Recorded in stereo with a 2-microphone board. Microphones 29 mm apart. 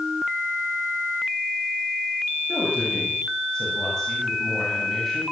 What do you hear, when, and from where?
2.5 s a woman speaking: 30° left (ahead or behind), 8.5 m; by 5.2 s 5° left (ahead or behind), 8.5 m